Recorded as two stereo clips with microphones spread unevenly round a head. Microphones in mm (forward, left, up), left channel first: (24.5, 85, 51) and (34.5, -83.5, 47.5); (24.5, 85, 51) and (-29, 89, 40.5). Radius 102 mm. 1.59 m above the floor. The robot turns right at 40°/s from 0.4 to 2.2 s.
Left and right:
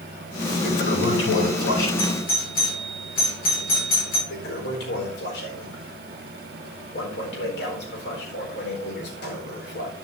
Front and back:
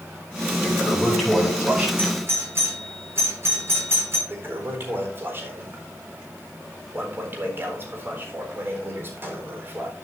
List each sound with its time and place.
0.6 s a toilet flushing: 60° left, 9.5 m; by 1.9 s 110° left, 9.5 m
2.0 s a doorbell: 125° left, 7.5 m; by 4.2 s 135° left, 7.5 m
4.3 s a toilet flushing: 125° left, 4.5 m